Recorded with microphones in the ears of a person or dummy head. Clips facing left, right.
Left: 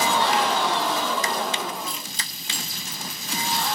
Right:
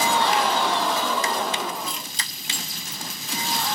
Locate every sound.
1.9 s keys jangling: 55° right (ahead or behind), 3.5 m